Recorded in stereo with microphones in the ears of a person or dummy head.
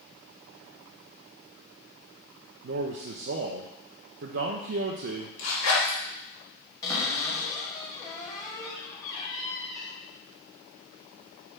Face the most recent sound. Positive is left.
turn(degrees=20)  # may be behind; listen again after turning